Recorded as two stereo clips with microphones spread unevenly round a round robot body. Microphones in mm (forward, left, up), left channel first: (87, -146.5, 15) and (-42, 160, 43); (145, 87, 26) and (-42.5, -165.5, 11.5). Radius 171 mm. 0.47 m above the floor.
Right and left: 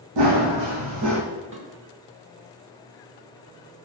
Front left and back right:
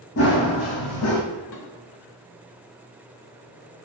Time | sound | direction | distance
0.2 | running footsteps | 105° left | 1.1 m
1.5 | dishes clattering | 60° left | 1.3 m